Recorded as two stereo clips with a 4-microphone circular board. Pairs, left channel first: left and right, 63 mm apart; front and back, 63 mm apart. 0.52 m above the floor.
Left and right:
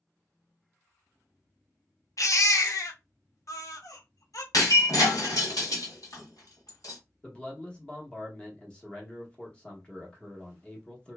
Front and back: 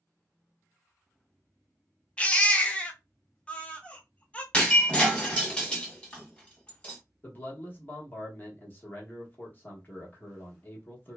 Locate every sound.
2.2 s a baby crying: 70° left, 0.5 m
4.5 s breaking glass: 70° left, 1.4 m
7.2 s a man speaking: 30° left, 1.0 m